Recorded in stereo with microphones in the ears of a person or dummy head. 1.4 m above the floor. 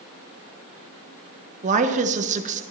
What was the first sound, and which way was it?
A woman speaking, 40° right (ahead or behind).